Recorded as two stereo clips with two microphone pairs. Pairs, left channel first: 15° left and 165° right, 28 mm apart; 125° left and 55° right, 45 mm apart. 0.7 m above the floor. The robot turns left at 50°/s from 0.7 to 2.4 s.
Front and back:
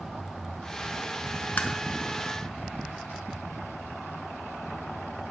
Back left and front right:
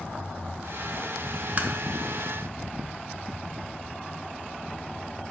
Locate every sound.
1.6 s tapping: 5° left, 0.8 m; by 1.7 s 5° right, 0.8 m